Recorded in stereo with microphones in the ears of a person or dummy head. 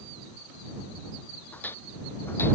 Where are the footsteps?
15° left (ahead or behind).